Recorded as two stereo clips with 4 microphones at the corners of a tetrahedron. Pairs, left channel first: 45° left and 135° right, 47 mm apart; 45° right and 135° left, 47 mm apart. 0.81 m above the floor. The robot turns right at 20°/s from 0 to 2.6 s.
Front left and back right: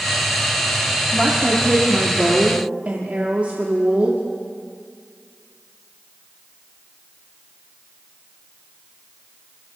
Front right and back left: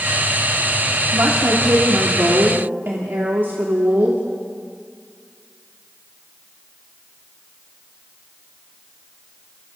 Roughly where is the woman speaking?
Behind left.